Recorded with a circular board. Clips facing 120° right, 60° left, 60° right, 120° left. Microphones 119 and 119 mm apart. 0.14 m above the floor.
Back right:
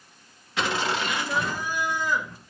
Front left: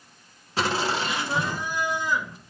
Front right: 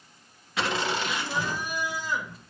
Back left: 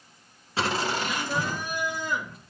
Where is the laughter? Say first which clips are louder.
Front left 1 dB, back left 1 dB; 85° left, 1.9 m; by 2.4 s 130° left, 3 m.